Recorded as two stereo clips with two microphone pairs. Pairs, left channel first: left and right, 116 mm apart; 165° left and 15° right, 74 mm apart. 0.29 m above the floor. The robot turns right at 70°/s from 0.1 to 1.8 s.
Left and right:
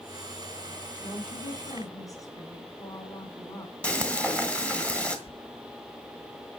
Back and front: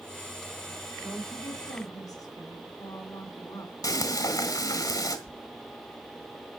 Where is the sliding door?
90° left, 0.6 m.